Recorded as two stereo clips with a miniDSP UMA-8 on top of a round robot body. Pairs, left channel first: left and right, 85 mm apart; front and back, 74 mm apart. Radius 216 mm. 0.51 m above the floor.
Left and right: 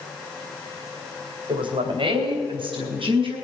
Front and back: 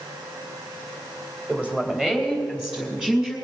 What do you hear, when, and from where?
1.5 s a woman speaking: 105° right, 3 m; by 3.4 s 100° right, 5.5 m